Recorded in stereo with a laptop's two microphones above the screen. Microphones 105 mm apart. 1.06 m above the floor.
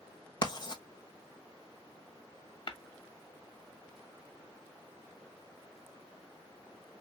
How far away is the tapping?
About 1.5 m.